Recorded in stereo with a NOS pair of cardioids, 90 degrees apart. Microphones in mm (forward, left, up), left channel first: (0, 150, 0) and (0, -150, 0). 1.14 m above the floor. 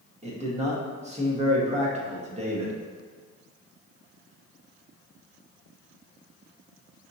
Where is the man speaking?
20° right, 1.4 m.